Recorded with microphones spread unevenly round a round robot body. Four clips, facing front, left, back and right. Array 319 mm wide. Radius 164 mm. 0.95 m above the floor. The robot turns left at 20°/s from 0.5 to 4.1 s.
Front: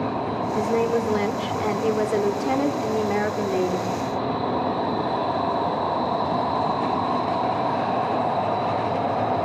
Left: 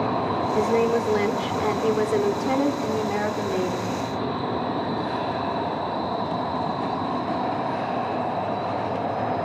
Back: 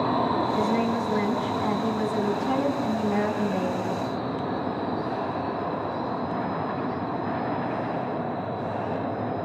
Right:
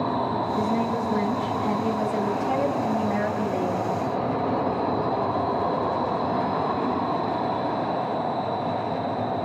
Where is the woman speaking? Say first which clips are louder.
Left 7 dB, front 3 dB; 75° left, 3 m; by 3.9 s 10° left, 3 m.